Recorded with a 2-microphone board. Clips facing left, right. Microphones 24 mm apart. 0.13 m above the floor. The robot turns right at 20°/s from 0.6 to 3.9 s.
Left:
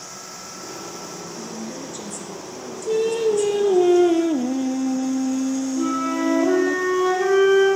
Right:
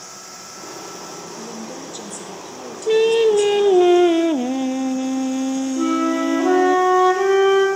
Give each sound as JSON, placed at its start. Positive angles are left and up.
{"t": 1.4, "sound": "a woman speaking", "azimuth_deg": -150, "distance_m": 1.5}
{"t": 2.9, "sound": "singing", "side_deg": -55, "distance_m": 0.5}
{"t": 5.8, "sound": "a flute", "side_deg": -45, "distance_m": 3.5}